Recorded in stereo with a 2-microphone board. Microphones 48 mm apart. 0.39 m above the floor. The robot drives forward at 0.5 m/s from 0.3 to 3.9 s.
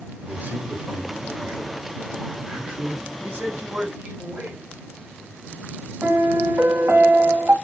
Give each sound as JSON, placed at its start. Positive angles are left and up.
{"t": 0.2, "sound": "a man speaking", "side_deg": -35, "distance_m": 1.5}
{"t": 3.2, "sound": "a man speaking", "side_deg": -45, "distance_m": 1.7}
{"t": 6.0, "sound": "a piano", "side_deg": -55, "distance_m": 1.0}